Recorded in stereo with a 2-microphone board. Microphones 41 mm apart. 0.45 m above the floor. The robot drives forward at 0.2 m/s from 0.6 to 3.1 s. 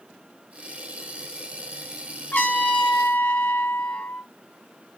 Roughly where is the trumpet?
Left.